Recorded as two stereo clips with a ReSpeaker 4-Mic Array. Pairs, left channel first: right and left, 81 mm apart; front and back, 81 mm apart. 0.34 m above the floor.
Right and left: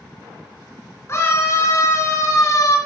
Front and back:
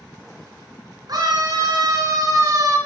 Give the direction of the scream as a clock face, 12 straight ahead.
5 o'clock.